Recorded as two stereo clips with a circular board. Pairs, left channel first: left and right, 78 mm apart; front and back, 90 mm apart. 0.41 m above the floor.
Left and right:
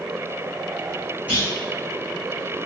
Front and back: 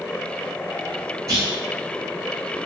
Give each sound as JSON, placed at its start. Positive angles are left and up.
{"t": 1.3, "sound": "a clunk", "azimuth_deg": -155, "distance_m": 1.3}